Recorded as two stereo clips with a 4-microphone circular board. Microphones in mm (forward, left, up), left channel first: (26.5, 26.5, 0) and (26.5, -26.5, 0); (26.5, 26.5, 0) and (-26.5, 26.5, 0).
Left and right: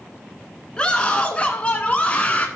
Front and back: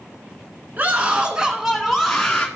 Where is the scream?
150° left, 1.2 m; by 2.5 s 60° left, 1.1 m.